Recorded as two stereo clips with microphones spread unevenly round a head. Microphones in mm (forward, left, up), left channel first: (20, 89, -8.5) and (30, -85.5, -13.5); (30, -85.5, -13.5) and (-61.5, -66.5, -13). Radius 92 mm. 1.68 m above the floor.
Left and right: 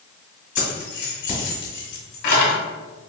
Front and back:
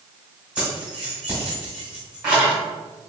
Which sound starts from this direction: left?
Keys jangling, at 0.6 s.